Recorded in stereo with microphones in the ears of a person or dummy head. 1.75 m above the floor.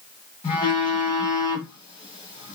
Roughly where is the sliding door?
No sliding door in this recording.